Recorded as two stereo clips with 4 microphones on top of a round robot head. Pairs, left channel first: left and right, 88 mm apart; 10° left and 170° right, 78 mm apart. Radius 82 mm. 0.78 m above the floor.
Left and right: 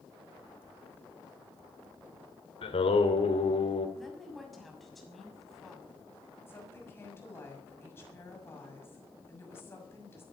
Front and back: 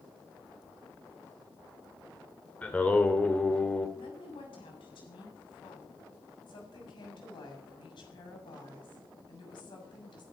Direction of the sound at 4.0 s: Straight ahead.